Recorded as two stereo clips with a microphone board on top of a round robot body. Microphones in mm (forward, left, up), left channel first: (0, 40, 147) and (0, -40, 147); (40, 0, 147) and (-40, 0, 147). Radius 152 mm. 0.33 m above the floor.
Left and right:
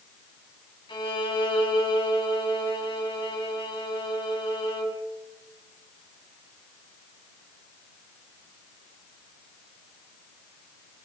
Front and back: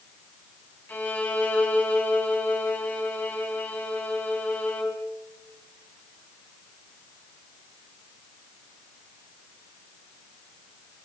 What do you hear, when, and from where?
0.9 s a violin: 70° left, 4.5 m